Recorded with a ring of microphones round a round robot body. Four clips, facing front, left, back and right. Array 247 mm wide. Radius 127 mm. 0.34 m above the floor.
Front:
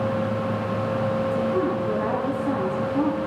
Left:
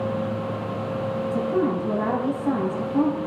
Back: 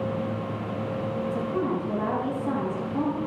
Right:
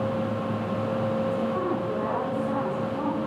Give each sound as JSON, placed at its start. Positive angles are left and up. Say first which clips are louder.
{"t": 1.2, "sound": "a woman speaking", "louder": "left 3 dB, front 4 dB", "azimuth_deg": 75, "distance_m": 9.0}